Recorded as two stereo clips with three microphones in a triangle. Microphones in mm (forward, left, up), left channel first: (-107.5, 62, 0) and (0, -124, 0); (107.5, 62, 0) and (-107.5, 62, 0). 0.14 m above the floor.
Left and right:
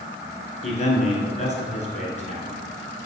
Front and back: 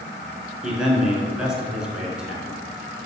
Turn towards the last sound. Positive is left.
turn(degrees=95)